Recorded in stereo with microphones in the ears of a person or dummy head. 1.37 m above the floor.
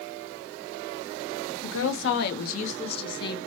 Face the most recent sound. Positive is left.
turn(degrees=20)  # may be behind; listen again after turning